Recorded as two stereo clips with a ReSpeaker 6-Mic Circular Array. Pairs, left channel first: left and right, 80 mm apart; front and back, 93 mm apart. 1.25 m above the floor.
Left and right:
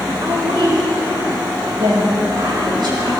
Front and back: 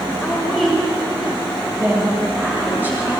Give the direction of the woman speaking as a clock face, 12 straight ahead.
3 o'clock.